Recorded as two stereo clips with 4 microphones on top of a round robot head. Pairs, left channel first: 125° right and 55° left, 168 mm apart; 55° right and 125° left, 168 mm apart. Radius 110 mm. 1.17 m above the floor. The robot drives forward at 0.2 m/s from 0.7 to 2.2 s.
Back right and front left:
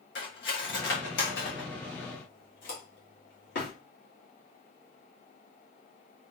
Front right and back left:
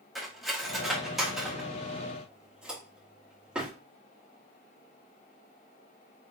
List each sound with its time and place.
0.1 s cutlery clinking: 145° right, 1.5 m; by 3.7 s 150° right, 1.8 m